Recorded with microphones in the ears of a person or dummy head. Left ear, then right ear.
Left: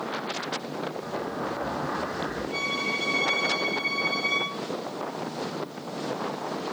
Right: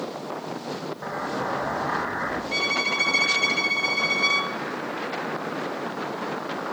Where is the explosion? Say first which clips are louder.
Right 3 dB; 85° right, 1.2 m.